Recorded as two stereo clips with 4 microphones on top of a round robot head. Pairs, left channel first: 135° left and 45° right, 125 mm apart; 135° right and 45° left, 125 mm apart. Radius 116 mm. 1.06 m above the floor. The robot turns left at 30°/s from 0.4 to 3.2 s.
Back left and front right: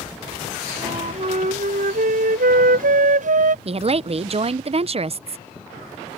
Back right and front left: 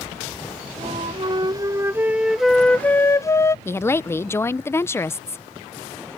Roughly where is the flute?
Ahead.